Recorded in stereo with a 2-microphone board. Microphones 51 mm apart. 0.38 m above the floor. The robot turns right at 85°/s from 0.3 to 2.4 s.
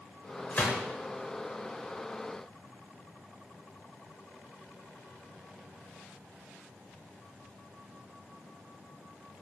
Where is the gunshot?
30° left (ahead or behind), 0.7 m; by 0.8 s 10° left (ahead or behind), 0.7 m.